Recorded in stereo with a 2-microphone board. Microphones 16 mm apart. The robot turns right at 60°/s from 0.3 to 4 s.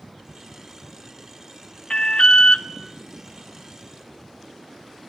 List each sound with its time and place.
1.9 s an alarm: 55° left, 1.1 m; by 2.6 s 100° left, 1.1 m